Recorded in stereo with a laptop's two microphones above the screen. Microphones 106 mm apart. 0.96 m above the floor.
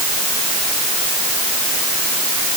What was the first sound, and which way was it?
Only background noise.